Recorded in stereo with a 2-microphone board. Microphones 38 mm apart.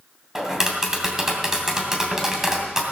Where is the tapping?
15° right (ahead or behind), 2.5 m.